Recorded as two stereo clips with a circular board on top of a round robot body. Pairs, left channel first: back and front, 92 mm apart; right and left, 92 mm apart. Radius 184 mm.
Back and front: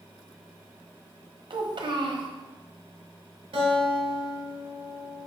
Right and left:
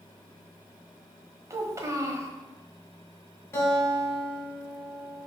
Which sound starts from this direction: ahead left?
A child speaking, at 1.5 s.